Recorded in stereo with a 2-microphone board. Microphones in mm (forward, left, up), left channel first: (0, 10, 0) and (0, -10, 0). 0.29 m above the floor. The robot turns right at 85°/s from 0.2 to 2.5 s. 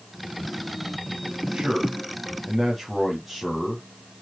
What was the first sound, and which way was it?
A man speaking, 75° right.